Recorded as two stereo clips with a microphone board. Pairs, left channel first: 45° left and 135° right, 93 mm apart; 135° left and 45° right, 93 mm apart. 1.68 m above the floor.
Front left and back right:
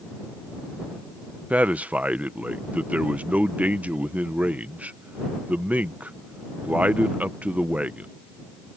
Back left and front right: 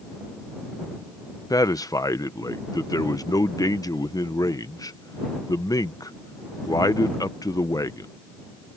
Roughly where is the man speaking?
Behind left.